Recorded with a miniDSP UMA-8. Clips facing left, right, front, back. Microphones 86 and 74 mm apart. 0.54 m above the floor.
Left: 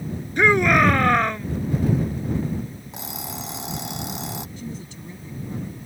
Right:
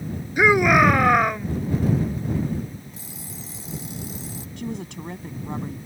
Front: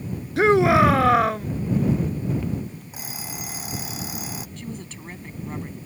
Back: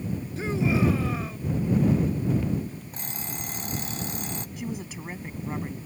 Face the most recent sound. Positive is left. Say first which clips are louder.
# right 4 dB, back 2 dB
turn(degrees=-100)